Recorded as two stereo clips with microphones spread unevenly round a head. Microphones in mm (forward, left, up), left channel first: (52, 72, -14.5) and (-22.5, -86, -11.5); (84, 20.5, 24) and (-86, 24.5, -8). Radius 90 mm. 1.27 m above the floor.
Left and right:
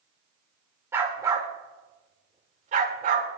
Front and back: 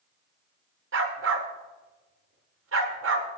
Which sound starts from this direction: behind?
A dog barking, at 0.9 s.